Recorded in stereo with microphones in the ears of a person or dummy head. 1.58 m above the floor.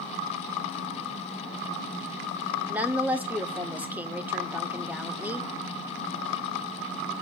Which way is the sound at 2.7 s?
10° right (ahead or behind).